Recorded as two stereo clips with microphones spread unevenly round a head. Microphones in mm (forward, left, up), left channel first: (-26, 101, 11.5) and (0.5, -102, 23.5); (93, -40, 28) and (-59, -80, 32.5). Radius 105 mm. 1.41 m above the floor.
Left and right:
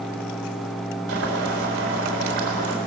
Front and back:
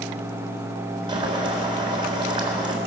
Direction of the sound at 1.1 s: 105° right.